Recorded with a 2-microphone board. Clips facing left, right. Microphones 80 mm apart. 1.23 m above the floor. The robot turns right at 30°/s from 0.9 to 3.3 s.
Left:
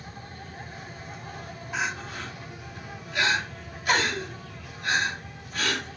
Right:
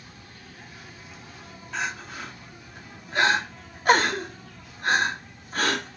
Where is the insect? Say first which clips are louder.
Left 6 dB; 40° left, 5.5 m; by 6.0 s 110° left, 5.5 m.